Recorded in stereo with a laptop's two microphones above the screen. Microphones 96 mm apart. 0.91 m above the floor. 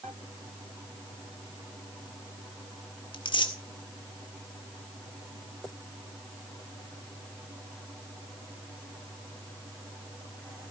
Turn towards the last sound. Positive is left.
turn(degrees=55)  # may be behind; listen again after turning